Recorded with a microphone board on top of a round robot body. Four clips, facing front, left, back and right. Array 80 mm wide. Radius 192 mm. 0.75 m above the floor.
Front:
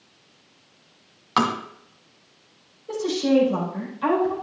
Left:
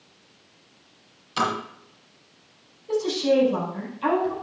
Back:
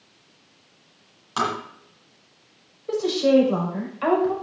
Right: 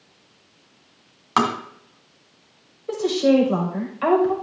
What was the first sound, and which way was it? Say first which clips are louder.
Tapping: right 5 dB, front 3 dB; 65° right.